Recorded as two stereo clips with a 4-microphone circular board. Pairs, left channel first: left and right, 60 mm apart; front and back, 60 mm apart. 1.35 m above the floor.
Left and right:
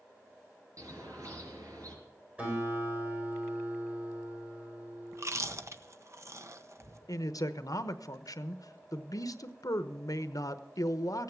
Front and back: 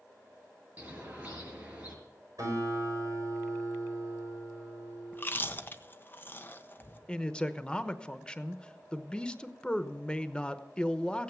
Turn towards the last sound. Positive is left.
turn(degrees=75)